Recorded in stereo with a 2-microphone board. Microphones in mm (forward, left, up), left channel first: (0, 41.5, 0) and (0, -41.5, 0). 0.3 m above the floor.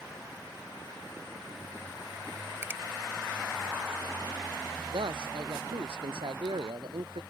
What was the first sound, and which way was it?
A finger snap, 25° right (ahead or behind).